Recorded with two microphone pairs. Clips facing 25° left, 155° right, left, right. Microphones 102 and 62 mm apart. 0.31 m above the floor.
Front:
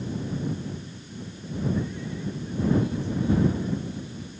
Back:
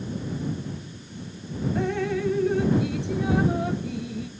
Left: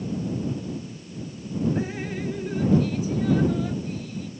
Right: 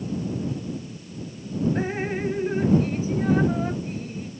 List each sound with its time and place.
1.8 s dripping: 145° right